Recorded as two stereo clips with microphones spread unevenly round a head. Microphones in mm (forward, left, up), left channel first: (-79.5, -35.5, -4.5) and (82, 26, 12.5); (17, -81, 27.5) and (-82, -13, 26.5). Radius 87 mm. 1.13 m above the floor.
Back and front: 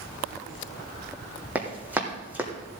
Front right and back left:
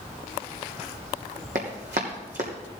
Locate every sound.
1.6 s running footsteps: 100° left, 2.5 m